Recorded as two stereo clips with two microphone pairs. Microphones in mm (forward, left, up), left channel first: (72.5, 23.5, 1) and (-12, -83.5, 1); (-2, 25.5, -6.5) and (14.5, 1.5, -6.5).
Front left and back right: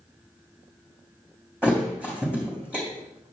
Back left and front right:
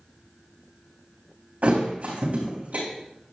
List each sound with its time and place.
1.6 s a thud: 50° right, 3.5 m